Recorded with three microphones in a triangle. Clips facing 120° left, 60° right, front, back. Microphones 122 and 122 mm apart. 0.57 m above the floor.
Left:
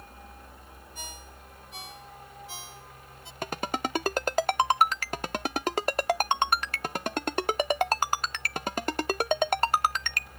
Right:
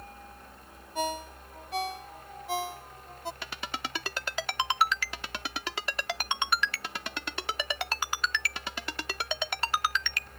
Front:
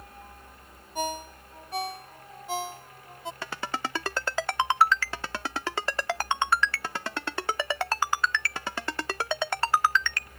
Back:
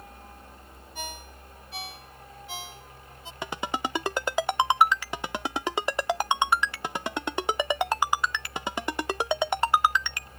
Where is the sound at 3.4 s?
115° left.